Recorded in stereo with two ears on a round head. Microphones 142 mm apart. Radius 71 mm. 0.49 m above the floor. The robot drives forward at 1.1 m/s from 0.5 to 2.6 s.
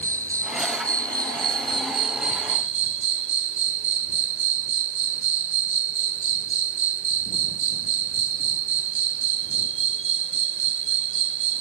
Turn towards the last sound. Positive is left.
turn(degrees=-45)  # may be behind; listen again after turning